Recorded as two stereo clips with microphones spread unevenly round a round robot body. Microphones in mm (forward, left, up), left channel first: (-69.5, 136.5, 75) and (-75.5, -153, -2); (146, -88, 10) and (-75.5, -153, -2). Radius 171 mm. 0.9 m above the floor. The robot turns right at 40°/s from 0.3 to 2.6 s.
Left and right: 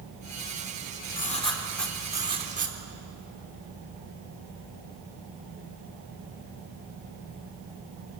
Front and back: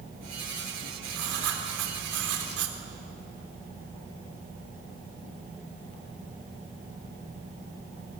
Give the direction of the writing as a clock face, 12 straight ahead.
7 o'clock.